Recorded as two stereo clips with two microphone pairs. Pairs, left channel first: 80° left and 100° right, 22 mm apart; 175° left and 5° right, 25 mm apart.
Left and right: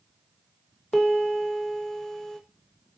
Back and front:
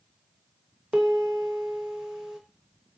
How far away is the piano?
About 0.9 m.